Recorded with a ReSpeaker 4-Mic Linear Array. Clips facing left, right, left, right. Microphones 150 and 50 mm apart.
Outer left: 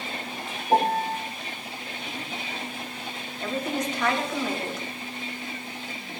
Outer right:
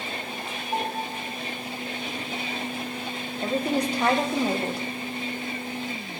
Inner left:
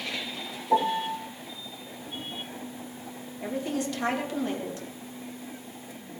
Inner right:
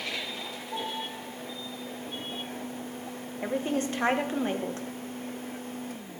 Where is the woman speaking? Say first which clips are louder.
Outer right 3 dB, inner right 1 dB; 30° right (ahead or behind), 1.4 m.